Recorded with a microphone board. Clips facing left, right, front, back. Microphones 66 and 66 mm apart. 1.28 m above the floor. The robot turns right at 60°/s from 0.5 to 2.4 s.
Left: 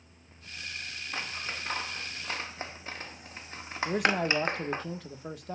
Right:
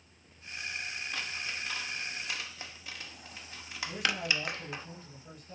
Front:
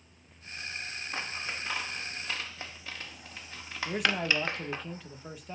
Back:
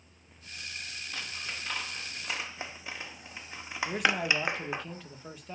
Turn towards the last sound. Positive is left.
turn(degrees=90)